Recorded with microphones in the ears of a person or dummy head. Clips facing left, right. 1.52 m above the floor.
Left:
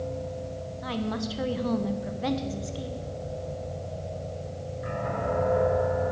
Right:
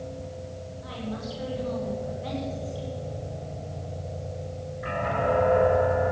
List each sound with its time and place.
0.8 s a woman speaking: 65° left (ahead or behind), 1.3 m